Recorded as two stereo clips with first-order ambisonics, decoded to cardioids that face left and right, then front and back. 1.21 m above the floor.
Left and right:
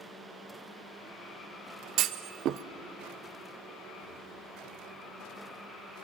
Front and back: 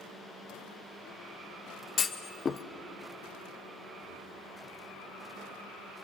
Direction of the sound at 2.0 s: 60° right.